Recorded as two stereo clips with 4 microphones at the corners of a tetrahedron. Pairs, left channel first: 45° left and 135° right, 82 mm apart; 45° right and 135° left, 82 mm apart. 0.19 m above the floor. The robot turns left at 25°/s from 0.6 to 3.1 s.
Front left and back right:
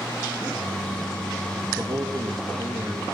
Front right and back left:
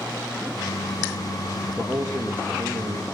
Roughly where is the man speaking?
Behind right.